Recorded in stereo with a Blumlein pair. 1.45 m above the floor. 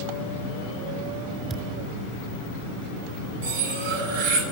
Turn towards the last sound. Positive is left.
turn(degrees=-60)